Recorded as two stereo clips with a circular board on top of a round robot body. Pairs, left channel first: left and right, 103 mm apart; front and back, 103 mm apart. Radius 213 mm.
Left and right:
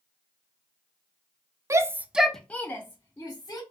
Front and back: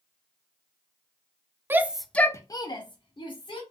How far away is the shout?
About 0.6 m.